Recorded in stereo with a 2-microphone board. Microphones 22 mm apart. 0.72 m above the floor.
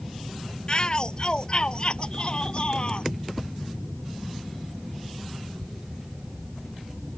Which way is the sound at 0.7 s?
40° left (ahead or behind).